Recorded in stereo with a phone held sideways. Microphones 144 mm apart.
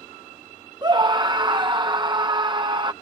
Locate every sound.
0.8 s a scream: 30° right (ahead or behind)